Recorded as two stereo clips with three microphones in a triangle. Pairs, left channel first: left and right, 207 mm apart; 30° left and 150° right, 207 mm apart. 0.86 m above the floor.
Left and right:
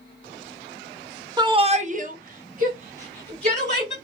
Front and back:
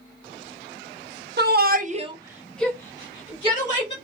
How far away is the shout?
About 0.7 m.